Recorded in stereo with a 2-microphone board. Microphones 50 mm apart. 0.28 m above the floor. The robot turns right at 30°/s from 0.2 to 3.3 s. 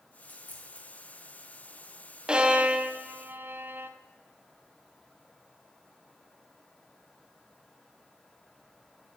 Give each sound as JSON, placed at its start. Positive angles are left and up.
{"t": 0.2, "sound": "a dropped coin", "side_deg": 40, "distance_m": 2.0}
{"t": 2.3, "sound": "a violin", "side_deg": -15, "distance_m": 0.8}